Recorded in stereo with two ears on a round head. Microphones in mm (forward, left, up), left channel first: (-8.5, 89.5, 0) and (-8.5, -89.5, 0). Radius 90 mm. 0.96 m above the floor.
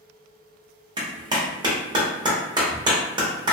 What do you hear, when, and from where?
1.0 s a clap: 20° right (ahead or behind), 0.8 m